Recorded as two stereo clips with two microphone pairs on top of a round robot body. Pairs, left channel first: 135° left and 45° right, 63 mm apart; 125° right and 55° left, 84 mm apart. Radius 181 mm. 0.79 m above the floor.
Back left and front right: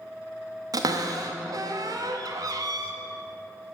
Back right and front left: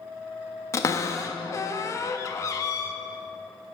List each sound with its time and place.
0.7 s a cupboard door: 70° right, 0.5 m